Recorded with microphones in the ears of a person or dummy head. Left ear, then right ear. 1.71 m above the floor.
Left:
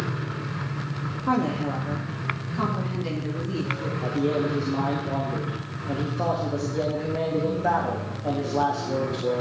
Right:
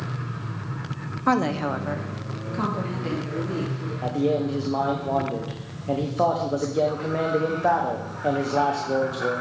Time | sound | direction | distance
1.3 | a woman speaking | 70° right (ahead or behind) | 0.9 m
4.0 | a man speaking | 20° right (ahead or behind) | 0.8 m